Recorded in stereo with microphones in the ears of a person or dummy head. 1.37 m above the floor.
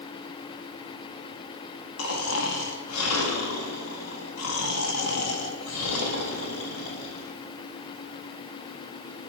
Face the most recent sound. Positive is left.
turn(degrees=85)